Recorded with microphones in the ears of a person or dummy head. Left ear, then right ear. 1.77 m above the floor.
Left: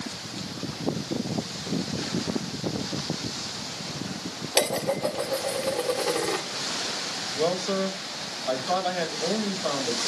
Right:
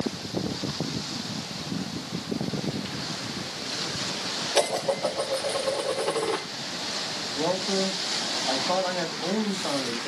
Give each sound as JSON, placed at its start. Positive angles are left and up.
{"t": 4.5, "sound": "dishes clattering", "side_deg": 0, "distance_m": 3.0}
{"t": 7.4, "sound": "a man speaking", "side_deg": 20, "distance_m": 6.5}